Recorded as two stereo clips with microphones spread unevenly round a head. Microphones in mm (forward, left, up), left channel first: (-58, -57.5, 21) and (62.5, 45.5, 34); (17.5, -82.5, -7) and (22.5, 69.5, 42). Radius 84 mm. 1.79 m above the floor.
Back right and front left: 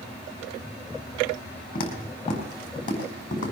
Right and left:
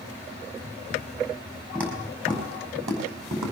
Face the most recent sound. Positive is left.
turn(degrees=155)